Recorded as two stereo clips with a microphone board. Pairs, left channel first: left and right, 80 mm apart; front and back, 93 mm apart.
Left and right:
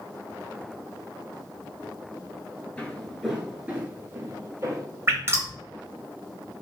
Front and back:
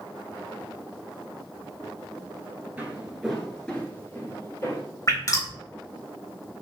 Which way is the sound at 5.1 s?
40° right.